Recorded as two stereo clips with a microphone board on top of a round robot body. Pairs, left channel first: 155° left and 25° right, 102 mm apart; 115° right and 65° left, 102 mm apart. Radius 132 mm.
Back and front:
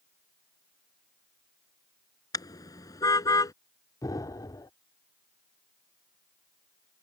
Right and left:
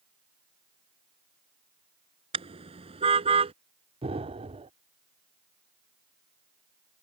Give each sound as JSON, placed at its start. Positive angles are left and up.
{"t": 2.3, "sound": "a car horn", "azimuth_deg": 100}
{"t": 4.0, "sound": "an explosion", "azimuth_deg": 100}